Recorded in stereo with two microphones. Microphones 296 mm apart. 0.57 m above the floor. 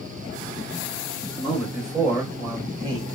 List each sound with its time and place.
1.4 s a man speaking: 15° left (ahead or behind), 1.5 m; by 3.2 s 20° right (ahead or behind), 1.4 m